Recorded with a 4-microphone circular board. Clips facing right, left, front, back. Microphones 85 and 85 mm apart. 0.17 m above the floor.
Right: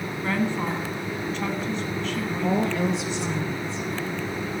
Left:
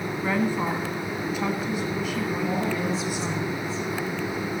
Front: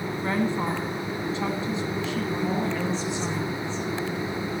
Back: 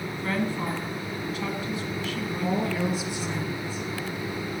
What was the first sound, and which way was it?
A woman speaking, 20° left.